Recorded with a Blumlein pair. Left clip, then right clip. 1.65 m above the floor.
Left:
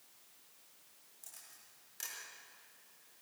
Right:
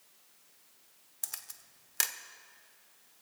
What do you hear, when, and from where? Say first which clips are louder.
1.2 s a camera shutter: right 12 dB; 50° right, 0.9 m